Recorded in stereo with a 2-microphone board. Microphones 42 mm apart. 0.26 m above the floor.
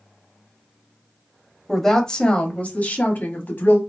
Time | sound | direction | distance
1.7 | a woman speaking | 5° left (ahead or behind) | 0.9 m